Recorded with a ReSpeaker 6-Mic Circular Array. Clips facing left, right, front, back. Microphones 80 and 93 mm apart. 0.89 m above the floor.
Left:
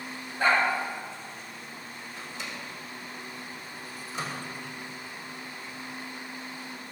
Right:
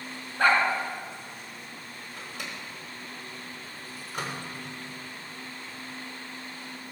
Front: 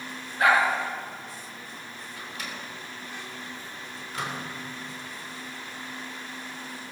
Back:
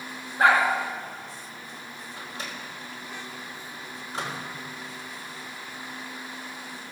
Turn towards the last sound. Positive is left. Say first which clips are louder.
# even, even
turn(degrees=-120)